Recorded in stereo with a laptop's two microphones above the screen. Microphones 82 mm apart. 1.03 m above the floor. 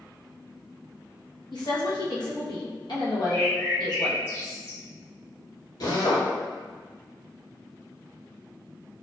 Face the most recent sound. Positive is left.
turn(degrees=55)  # may be behind; listen again after turning